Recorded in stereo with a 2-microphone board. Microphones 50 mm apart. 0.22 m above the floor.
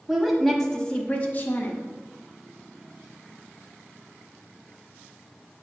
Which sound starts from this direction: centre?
A woman speaking, at 0.1 s.